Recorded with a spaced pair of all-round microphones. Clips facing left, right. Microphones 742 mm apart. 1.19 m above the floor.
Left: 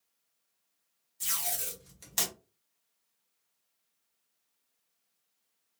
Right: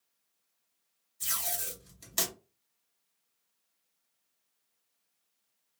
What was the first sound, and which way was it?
Tape being pulled, 25° left (ahead or behind).